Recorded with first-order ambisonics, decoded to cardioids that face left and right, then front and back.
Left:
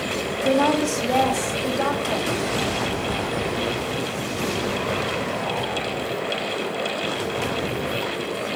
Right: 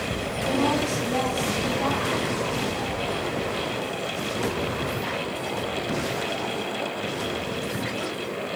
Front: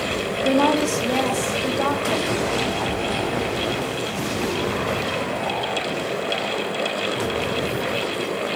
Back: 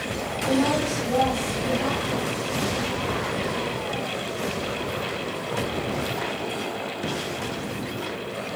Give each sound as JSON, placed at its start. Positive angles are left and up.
{"t": 0.4, "sound": "a woman speaking", "azimuth_deg": 60, "distance_m": 3.0}